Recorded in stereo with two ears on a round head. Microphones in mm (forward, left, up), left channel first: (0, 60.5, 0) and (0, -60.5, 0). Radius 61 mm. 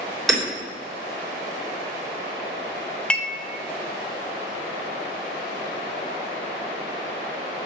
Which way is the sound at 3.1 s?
10° left (ahead or behind).